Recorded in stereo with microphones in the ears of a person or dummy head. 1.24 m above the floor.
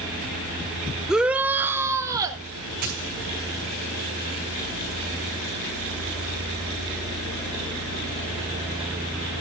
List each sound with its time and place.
1.1 s a shout: centre (ahead or behind), 0.9 m; by 2.4 s 15° right (ahead or behind), 2 m
2.8 s a dropped coin: 50° right (ahead or behind), 5 m